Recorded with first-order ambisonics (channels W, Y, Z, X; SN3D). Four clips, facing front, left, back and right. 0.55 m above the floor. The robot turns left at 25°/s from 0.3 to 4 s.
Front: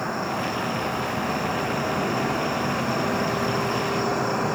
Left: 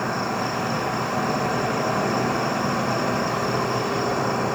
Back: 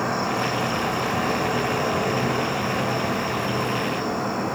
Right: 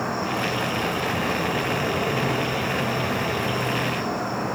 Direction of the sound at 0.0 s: 160° left.